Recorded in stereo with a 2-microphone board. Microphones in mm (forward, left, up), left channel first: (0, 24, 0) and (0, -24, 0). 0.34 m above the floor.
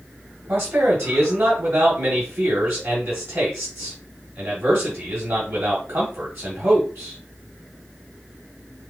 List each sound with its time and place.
0.5 s a man speaking: 65° right (ahead or behind), 2.5 m